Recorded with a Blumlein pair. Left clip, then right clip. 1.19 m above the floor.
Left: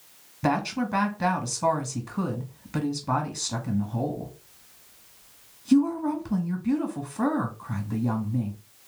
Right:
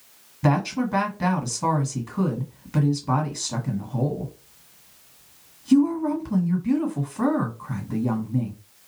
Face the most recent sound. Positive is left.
turn(degrees=0)